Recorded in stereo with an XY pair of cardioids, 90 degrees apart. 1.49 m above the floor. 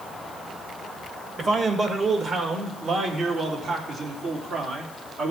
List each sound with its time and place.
1.4 s a man speaking: 45° right, 2.5 m; by 5.3 s 75° right, 4 m